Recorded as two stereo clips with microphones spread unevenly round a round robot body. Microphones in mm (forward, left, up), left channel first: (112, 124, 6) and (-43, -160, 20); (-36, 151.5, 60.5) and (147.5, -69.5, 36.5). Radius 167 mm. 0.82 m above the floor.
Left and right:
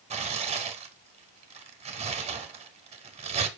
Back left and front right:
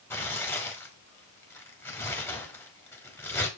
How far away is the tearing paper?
About 0.6 m.